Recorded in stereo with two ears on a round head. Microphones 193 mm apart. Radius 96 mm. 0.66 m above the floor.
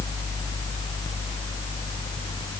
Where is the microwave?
I don't hear a microwave.